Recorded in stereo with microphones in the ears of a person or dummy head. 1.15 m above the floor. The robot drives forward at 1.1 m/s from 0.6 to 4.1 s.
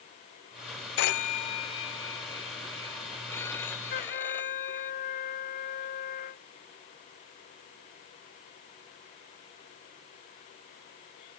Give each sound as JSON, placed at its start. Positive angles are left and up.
{"t": 1.0, "sound": "a phone ringing", "side_deg": 60}
{"t": 3.9, "sound": "a trumpet", "side_deg": 40}